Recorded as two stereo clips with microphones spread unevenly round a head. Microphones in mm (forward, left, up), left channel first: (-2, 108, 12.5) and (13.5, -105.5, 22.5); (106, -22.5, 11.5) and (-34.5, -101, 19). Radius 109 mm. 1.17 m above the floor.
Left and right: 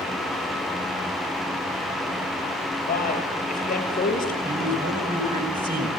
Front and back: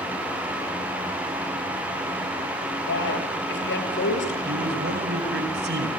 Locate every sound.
2.9 s a man speaking: 40° left, 7.5 m
4.5 s a man speaking: 140° right, 5.5 m